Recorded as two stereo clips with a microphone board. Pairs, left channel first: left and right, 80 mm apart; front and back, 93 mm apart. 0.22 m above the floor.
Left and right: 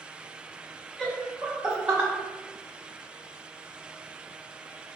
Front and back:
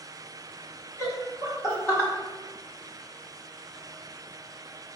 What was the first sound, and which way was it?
Laughter, 10° left.